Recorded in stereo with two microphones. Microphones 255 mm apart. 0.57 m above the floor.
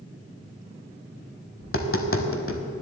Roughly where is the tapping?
Left.